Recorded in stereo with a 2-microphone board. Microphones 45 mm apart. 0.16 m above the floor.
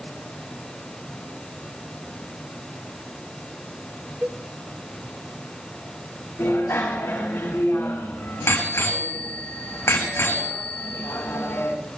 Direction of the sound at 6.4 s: 55° left (ahead or behind).